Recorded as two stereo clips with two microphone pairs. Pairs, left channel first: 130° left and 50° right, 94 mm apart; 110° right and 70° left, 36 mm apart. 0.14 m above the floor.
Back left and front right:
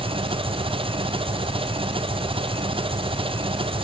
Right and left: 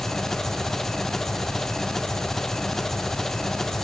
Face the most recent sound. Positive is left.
turn(degrees=-30)